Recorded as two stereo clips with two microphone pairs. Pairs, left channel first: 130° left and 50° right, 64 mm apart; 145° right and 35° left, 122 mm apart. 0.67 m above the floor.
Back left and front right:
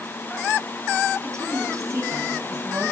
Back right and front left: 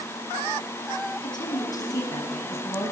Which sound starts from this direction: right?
A woman speaking, at 1.1 s.